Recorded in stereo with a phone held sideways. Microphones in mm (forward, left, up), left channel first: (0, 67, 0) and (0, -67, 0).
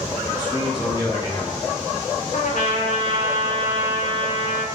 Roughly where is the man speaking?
Left.